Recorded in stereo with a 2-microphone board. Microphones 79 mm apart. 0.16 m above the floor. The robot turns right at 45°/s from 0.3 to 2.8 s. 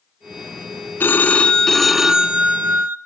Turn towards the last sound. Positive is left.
turn(degrees=-140)